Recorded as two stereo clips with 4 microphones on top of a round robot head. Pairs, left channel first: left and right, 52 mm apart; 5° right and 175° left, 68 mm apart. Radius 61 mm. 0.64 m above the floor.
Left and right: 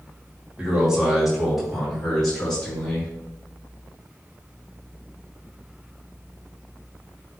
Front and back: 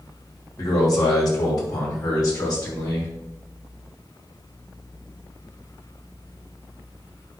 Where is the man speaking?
15° right, 2.5 m; by 3.1 s 15° left, 3.5 m.